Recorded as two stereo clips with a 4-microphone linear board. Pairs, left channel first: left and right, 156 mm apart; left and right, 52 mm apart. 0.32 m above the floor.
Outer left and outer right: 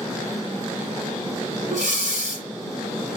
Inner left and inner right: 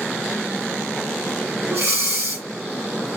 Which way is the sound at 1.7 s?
65° right (ahead or behind).